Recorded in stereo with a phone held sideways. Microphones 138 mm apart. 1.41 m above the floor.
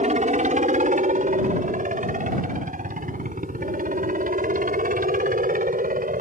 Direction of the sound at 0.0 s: 60° right (ahead or behind).